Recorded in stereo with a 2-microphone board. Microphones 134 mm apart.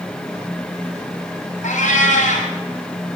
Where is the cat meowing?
75° left (ahead or behind), 2 m.